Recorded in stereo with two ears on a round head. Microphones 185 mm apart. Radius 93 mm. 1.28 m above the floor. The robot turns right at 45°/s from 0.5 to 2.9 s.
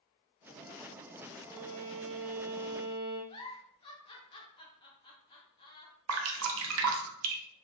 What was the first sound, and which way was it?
A violin, 150° left.